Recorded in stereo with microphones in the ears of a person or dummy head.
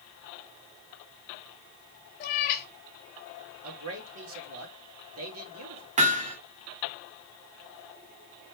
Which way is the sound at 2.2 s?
40° left (ahead or behind).